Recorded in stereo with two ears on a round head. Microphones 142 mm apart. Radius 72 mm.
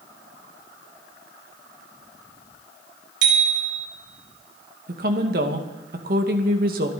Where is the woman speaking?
55° right (ahead or behind), 2 m.